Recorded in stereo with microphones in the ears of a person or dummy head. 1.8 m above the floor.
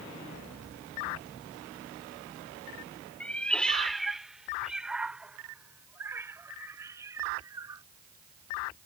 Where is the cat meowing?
5° left (ahead or behind); by 7.8 s 20° right (ahead or behind).